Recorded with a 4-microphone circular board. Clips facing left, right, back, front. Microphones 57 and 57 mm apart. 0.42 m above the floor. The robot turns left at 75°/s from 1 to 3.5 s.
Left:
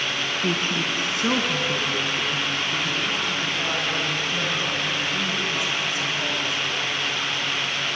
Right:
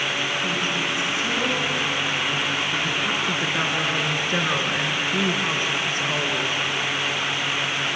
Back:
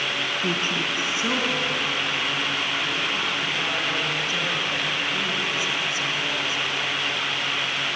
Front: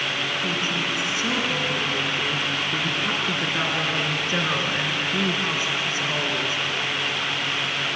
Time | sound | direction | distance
0.4 | a woman speaking | 130° left | 4.5 m